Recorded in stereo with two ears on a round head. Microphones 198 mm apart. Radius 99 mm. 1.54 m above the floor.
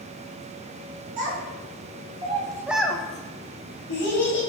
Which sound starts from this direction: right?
A child speaking, at 1.2 s.